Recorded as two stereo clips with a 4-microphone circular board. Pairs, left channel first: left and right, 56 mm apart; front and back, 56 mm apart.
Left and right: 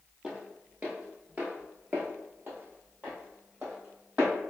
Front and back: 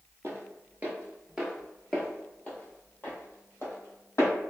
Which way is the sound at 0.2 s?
160° right.